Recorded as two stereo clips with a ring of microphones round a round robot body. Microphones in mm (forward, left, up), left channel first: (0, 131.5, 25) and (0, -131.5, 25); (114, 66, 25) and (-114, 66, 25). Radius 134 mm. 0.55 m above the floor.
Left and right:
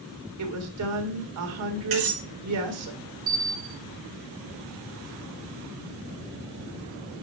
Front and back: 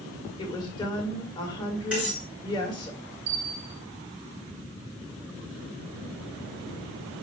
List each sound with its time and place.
0.4 s a woman speaking: 70° right, 1.7 m
1.9 s cutlery clinking: 95° right, 5 m
3.3 s a bell: 130° right, 3.5 m